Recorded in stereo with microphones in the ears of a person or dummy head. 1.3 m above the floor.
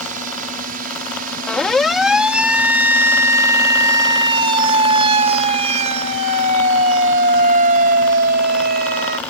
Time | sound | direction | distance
0.0 | a drone | 50° right (ahead or behind) | ?
1.5 | a siren | 5° left (ahead or behind) | ?